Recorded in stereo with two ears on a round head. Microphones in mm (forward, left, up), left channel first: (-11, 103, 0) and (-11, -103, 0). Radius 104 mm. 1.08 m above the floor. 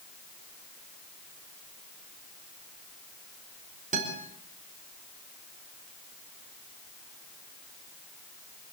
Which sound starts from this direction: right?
A guitar, at 3.9 s.